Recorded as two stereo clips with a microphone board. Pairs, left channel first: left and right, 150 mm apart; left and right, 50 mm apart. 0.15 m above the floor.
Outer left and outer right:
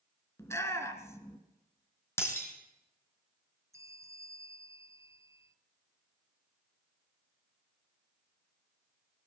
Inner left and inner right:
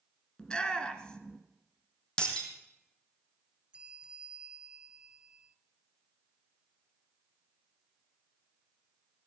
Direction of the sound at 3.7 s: 20° right (ahead or behind).